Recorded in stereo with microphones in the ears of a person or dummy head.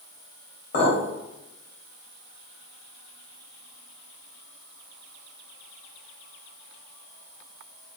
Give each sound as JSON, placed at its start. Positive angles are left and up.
{"t": 0.7, "sound": "a clink", "side_deg": 50, "distance_m": 1.0}